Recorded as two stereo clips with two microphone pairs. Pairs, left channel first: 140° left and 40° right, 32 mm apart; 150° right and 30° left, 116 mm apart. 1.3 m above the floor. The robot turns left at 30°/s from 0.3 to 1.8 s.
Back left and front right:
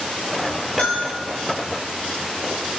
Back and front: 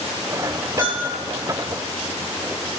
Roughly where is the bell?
Behind.